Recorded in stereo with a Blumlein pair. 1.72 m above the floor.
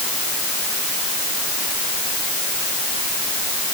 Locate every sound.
Only background noise.